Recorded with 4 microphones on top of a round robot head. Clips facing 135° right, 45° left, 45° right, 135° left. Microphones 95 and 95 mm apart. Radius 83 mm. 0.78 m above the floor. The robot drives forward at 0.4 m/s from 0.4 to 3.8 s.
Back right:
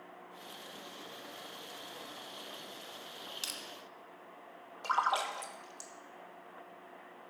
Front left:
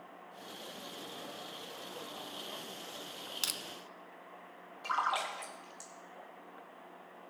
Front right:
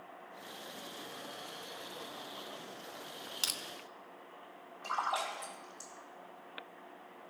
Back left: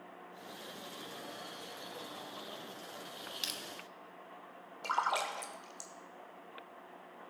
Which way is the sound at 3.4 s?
10° left.